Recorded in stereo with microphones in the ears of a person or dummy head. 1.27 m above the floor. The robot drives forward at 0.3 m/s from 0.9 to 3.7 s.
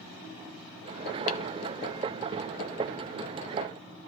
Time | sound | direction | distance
1.3 | tapping | 45° left (ahead or behind) | 1.3 m